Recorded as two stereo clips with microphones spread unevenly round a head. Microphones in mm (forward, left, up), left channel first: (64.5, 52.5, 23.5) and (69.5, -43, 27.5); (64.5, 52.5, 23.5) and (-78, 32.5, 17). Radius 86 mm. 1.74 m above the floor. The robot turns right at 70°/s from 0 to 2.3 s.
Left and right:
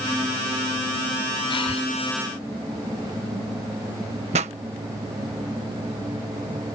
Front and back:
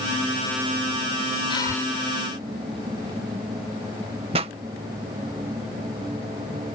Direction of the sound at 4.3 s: 110° right.